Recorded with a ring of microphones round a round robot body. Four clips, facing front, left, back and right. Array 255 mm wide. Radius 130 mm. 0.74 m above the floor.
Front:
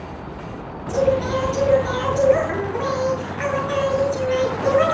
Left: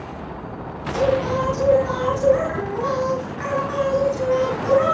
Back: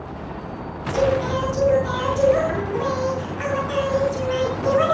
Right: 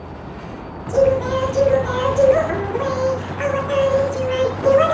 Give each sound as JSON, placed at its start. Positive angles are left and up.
{"t": 0.9, "sound": "singing", "azimuth_deg": -80, "distance_m": 8.0}